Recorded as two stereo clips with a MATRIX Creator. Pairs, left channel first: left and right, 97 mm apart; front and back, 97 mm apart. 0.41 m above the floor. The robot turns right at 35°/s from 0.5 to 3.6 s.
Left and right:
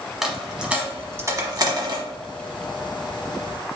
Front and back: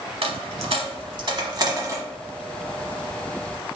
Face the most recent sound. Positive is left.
turn(degrees=-65)